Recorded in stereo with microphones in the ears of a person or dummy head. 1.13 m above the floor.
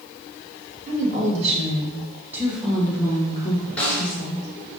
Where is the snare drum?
10° left (ahead or behind), 1.2 m.